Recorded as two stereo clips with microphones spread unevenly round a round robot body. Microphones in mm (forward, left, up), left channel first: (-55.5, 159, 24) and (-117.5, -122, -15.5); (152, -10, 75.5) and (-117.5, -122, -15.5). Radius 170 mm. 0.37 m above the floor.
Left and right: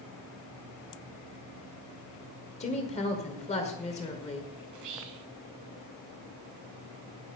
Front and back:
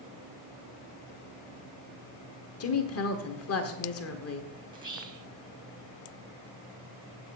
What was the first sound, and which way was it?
A woman speaking, 15° left.